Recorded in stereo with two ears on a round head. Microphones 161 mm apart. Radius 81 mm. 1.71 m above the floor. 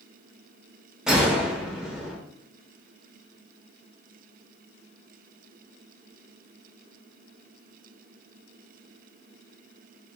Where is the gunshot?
5° right (ahead or behind), 0.6 m.